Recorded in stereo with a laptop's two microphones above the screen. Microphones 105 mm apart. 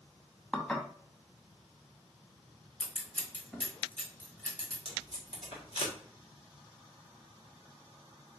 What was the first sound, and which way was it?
Dishes clattering, 15° left (ahead or behind).